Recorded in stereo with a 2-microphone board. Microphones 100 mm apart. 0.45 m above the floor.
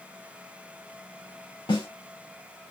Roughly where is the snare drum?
Left.